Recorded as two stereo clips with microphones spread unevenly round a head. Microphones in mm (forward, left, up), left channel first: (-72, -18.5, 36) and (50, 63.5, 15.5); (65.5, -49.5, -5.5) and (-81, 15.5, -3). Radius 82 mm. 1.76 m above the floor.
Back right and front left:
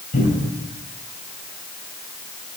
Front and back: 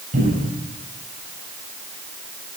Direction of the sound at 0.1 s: 170° right.